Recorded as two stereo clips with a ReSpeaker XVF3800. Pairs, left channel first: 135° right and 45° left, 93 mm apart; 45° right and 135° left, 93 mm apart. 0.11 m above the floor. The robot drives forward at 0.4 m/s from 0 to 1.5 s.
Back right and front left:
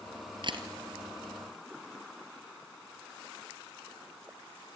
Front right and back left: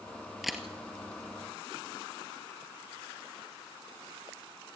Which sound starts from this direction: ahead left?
A camera shutter, at 0.4 s.